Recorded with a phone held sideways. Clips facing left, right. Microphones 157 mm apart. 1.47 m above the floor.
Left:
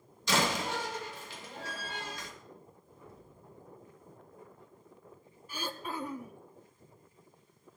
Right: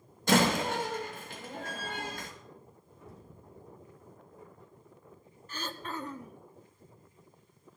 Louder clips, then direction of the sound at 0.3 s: Right 5 dB; 55° right (ahead or behind).